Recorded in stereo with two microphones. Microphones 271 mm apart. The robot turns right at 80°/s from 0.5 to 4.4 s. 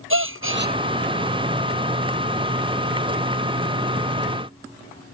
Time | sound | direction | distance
0.1 | a gasp | 50° right (ahead or behind) | ?